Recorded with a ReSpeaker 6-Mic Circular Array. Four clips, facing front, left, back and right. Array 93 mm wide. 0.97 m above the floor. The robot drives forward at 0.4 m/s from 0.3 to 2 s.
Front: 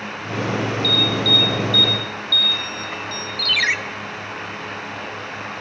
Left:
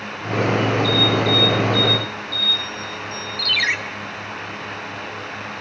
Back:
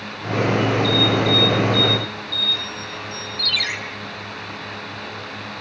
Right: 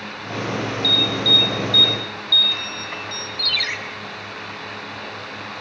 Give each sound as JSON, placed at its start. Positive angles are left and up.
{"t": 0.8, "sound": "an alarm", "azimuth_deg": -50, "distance_m": 6.0}
{"t": 3.4, "sound": "a ringtone", "azimuth_deg": 40, "distance_m": 1.0}